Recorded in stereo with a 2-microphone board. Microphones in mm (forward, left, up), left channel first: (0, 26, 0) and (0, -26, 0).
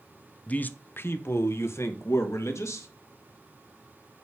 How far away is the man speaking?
About 0.7 m.